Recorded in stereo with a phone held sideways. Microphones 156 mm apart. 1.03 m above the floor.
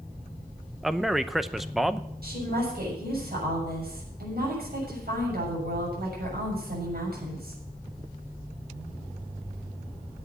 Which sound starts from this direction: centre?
A man speaking, at 0.8 s.